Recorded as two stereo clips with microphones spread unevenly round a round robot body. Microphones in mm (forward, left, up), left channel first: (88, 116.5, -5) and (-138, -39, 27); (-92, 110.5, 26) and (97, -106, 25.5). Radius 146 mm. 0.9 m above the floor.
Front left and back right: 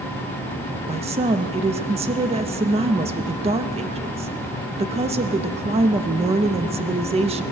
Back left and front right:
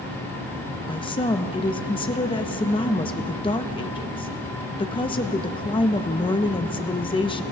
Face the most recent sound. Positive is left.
turn(degrees=170)